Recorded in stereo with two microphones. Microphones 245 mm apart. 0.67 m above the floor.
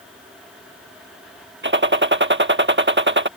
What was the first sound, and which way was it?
A gunshot, 50° right (ahead or behind).